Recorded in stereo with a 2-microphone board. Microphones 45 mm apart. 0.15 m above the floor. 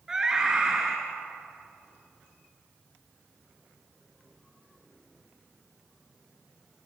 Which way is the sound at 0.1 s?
15° right (ahead or behind).